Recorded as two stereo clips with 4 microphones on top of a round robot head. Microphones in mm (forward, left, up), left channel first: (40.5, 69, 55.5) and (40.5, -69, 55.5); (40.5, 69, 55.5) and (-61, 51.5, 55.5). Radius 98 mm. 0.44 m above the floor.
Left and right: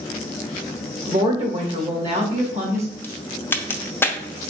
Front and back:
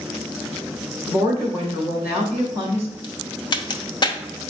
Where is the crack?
20° left, 0.7 m.